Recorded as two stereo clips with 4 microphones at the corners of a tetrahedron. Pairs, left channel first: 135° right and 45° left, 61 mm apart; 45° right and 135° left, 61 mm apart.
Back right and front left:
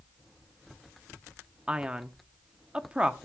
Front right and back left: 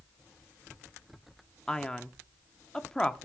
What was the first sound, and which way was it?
A man speaking, 10° left.